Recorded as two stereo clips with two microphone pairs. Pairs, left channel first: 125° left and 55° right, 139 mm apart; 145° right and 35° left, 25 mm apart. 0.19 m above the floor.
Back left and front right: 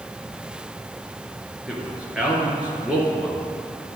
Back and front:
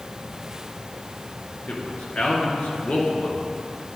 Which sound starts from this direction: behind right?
A man speaking, at 1.7 s.